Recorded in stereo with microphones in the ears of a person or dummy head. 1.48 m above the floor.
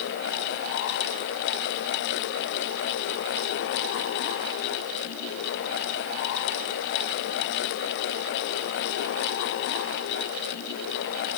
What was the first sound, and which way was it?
Only background noise.